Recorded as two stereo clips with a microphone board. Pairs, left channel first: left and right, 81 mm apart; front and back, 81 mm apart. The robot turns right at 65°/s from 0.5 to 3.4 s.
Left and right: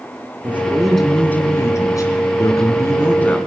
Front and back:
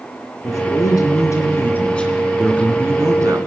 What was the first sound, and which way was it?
A man speaking, 25° right.